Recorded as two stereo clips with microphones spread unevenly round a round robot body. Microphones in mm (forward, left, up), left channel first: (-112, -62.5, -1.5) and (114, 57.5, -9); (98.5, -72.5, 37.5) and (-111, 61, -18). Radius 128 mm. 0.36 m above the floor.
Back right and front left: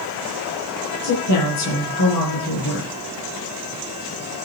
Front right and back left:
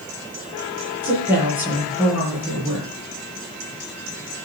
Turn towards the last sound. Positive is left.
turn(degrees=-130)